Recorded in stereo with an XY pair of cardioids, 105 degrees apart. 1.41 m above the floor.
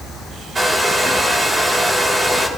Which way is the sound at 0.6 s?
20° right.